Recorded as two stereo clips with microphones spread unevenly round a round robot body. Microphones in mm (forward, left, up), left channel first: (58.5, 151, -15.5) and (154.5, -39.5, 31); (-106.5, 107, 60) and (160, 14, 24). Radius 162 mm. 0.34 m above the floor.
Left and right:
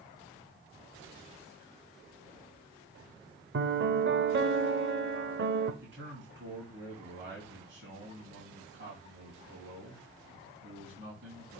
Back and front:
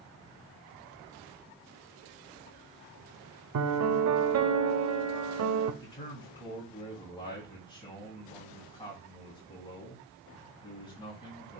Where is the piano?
25° right, 0.8 m.